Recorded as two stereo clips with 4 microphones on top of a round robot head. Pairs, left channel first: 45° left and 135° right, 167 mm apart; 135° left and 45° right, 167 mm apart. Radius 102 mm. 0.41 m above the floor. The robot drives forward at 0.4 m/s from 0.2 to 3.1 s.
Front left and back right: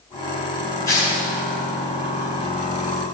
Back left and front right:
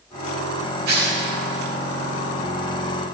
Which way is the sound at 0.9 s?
25° right.